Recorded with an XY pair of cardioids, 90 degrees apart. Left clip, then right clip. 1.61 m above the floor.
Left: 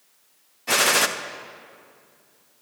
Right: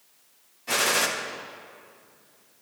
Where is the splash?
I don't hear a splash.